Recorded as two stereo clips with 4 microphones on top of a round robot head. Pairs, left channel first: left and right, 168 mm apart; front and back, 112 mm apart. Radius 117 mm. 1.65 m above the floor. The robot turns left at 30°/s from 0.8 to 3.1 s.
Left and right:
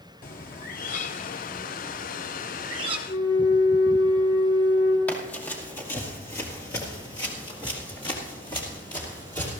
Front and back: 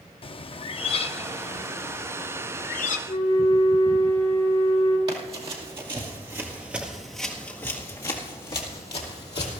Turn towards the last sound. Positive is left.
turn(degrees=15)